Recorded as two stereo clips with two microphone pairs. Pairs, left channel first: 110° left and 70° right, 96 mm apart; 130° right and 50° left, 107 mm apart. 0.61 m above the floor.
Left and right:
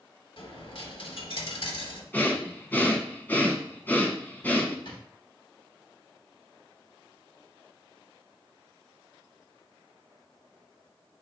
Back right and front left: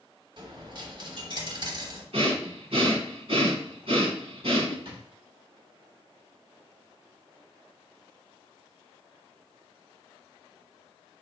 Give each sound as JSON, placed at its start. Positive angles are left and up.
{"t": 0.4, "sound": "a dropped coin", "azimuth_deg": 90, "distance_m": 0.9}
{"t": 2.1, "sound": "breathing", "azimuth_deg": 40, "distance_m": 1.0}
{"t": 4.8, "sound": "a drawer", "azimuth_deg": 80, "distance_m": 1.1}